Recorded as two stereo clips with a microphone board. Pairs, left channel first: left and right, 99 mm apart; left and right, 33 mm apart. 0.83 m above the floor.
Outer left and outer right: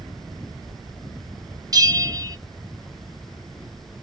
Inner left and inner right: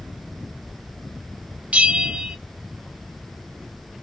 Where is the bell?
40° right (ahead or behind), 0.6 m.